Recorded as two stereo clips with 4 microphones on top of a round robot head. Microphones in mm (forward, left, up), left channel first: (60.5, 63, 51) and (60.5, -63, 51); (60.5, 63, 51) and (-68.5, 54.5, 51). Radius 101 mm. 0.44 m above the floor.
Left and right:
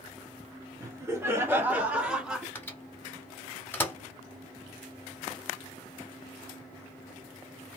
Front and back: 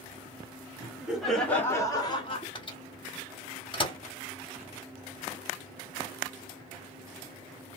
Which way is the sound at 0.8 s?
125° right.